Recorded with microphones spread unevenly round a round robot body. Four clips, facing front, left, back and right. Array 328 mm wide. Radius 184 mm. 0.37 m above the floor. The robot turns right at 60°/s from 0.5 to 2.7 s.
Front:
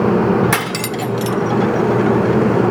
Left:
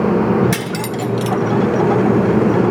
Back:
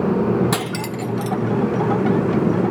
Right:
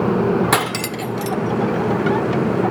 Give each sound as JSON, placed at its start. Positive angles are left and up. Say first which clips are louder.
{"t": 0.5, "sound": "cutlery clinking", "louder": "right 1 dB, front 4 dB", "azimuth_deg": -65, "distance_m": 0.5}